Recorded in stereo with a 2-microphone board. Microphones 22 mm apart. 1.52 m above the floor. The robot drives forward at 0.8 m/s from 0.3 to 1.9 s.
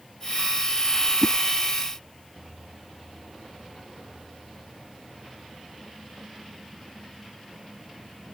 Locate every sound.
1.2 s a whoosh: 20° left (ahead or behind)